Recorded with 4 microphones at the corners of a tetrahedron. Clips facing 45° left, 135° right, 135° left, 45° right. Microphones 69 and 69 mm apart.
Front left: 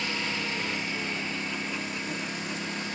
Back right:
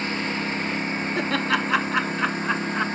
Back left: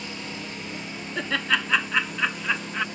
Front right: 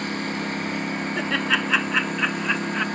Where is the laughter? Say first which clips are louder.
Back right 10 dB, front right 1 dB; 130° right.